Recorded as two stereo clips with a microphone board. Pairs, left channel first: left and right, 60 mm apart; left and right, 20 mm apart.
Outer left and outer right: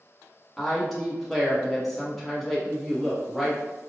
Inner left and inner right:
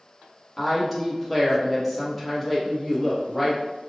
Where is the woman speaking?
Centre (ahead or behind), 1.0 m.